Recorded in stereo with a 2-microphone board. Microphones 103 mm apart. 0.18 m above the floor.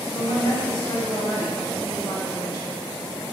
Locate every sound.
0.1 s a woman speaking: 50° left (ahead or behind), 1.6 m